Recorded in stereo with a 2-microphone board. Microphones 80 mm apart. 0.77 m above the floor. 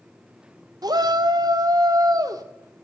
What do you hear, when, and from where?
0.8 s a shout: 55° right (ahead or behind), 1.0 m; by 2.4 s 50° right (ahead or behind), 1.9 m